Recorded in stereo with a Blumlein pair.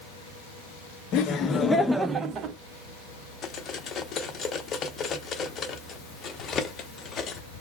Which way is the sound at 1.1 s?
35° left.